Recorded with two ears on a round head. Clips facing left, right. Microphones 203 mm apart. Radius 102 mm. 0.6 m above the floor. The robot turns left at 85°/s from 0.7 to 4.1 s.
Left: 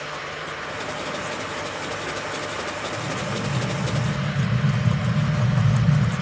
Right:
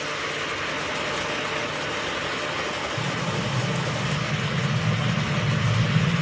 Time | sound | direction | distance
3.0 | an explosion | 140° right | 1.9 m